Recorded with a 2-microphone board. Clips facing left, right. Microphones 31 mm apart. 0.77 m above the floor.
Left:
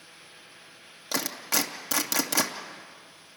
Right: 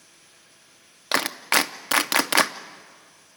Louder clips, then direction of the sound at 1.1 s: Right 7 dB; 55° right (ahead or behind).